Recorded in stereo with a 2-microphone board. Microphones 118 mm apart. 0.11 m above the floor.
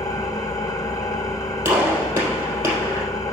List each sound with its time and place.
0.0 s an engine running: 35° left (ahead or behind), 1.3 m
1.6 s a gunshot: 20° right (ahead or behind), 3.5 m